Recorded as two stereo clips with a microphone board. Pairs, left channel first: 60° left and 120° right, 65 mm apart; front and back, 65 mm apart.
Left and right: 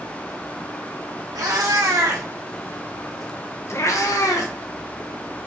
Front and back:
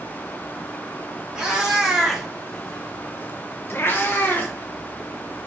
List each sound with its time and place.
1.4 s a cat meowing: 100° right, 1.5 m; by 4.5 s 60° left, 1.1 m